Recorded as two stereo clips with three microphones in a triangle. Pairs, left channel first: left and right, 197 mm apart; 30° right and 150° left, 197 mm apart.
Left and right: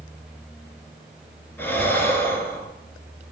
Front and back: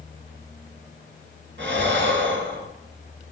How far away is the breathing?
About 1.4 m.